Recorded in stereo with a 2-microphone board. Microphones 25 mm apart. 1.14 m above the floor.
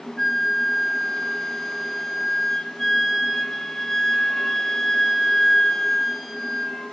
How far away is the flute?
About 1.2 m.